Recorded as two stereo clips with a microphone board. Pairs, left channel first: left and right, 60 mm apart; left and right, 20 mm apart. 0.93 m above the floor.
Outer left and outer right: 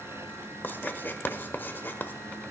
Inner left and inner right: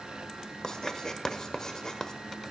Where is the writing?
35° left (ahead or behind), 1.2 m.